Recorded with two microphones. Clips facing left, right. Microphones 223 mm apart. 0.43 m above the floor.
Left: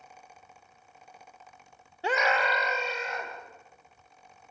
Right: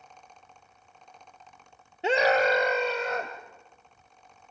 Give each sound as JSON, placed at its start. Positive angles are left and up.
{"t": 2.0, "sound": "a scream", "side_deg": -20, "distance_m": 0.8}